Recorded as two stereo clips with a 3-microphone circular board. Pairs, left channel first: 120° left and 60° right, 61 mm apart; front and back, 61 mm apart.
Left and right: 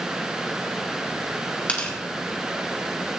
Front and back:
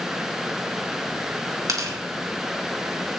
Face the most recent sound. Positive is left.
turn(degrees=-175)